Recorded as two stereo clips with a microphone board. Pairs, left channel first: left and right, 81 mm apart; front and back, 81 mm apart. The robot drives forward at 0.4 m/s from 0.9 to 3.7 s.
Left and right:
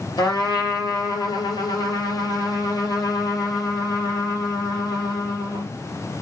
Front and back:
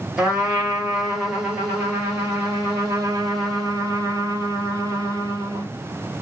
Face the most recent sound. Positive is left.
turn(degrees=125)